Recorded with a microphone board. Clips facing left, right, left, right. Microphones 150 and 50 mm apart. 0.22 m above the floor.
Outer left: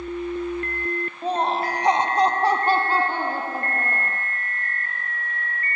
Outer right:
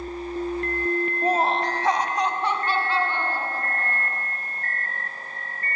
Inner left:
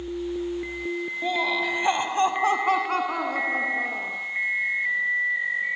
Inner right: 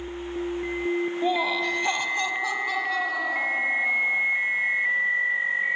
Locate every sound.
1.2 s laughter: 15° right (ahead or behind), 1.1 m; by 4.2 s 55° left (ahead or behind), 3 m